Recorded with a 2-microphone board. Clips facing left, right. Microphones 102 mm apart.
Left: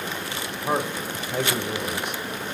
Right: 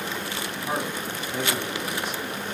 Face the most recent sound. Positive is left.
turn(degrees=65)  # may be behind; listen again after turning